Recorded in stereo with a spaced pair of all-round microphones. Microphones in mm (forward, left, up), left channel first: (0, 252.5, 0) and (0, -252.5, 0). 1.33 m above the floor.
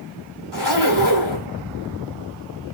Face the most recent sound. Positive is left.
turn(degrees=-55)  # may be behind; listen again after turning